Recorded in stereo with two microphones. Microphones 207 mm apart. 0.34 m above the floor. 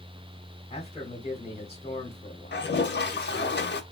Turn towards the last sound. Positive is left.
turn(degrees=55)  # may be behind; listen again after turning